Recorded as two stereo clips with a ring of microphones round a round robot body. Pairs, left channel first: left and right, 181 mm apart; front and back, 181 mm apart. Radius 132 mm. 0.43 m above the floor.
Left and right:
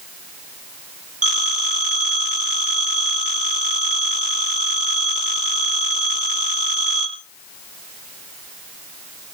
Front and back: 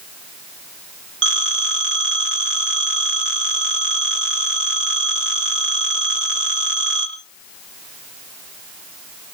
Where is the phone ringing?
150° right, 5 m.